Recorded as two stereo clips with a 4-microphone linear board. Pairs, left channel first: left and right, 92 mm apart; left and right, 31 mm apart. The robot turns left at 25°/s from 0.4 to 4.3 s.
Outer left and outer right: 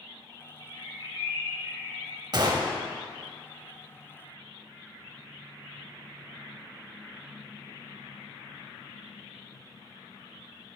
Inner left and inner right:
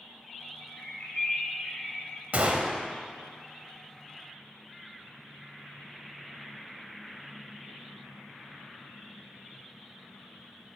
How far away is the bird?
About 1.9 m.